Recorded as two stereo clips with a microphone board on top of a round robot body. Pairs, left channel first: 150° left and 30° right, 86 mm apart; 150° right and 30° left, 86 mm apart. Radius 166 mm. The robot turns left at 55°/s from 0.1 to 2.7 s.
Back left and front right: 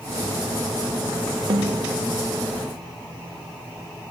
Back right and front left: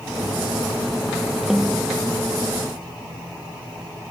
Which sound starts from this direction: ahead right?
A snare drum, at 1.5 s.